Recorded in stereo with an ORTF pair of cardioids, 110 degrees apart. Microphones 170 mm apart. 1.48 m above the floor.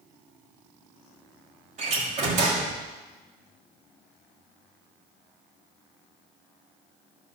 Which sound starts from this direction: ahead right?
A door slam, at 1.8 s.